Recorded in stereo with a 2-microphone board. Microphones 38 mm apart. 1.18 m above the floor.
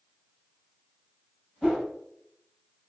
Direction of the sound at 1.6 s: Centre (ahead or behind).